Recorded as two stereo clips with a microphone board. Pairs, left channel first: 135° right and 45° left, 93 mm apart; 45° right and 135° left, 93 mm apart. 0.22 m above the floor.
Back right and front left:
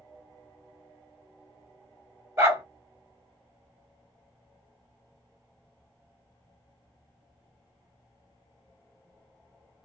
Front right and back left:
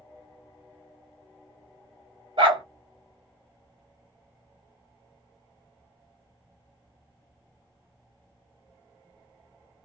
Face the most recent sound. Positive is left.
turn(degrees=105)